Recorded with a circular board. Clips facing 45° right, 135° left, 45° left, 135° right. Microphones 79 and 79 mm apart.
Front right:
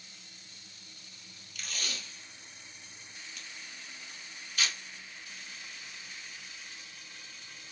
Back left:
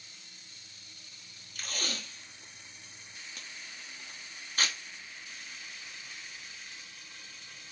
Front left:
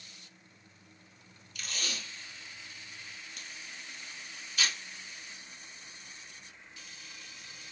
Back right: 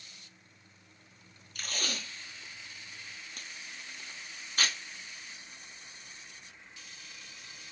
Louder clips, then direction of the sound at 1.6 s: Back left 3 dB, back right 2 dB; straight behind.